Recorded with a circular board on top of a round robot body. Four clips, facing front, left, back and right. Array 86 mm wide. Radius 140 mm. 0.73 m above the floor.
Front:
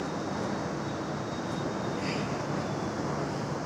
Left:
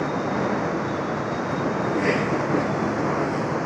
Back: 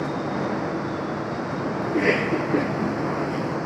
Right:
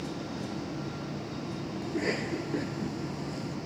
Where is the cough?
160° left.